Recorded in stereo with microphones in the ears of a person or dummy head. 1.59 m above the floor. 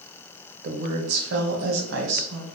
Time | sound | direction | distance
0.6 | a woman speaking | 55° right (ahead or behind) | 0.8 m